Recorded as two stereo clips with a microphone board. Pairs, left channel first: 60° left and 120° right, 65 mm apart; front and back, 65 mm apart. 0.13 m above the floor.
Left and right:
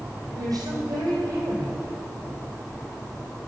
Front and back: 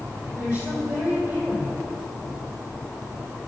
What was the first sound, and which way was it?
A woman speaking, 125° right.